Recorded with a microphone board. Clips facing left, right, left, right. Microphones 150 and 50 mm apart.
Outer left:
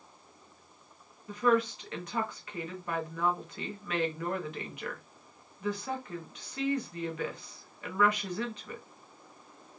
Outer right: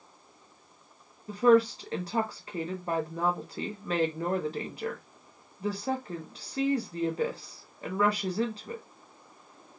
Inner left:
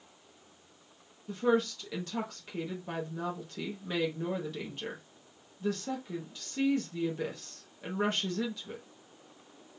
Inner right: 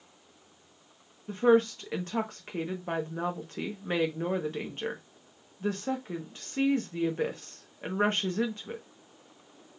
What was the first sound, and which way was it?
A woman speaking, 35° right (ahead or behind).